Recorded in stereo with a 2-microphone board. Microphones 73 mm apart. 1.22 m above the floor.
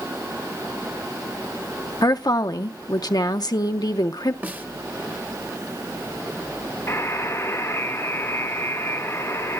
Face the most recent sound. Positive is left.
turn(degrees=35)  # may be behind; listen again after turning